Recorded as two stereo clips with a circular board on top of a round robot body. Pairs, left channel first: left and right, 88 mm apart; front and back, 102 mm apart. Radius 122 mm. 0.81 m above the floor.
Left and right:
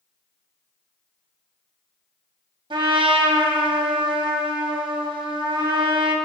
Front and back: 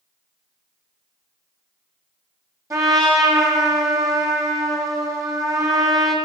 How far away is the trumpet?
About 1.3 m.